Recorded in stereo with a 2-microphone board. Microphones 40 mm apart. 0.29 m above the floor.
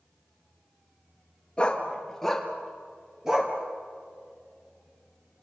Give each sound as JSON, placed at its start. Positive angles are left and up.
{"t": 1.6, "sound": "a dog barking", "side_deg": 25, "distance_m": 2.5}